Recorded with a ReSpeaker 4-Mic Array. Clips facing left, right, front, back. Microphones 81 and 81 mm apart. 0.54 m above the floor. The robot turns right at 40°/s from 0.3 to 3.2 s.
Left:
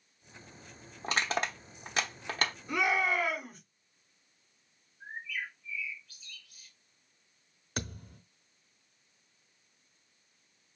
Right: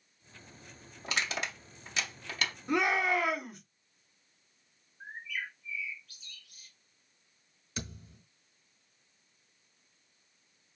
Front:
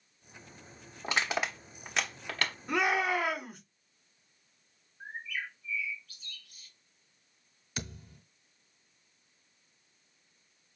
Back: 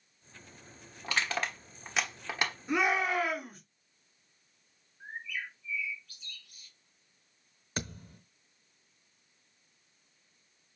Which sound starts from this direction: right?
A shout, at 2.7 s.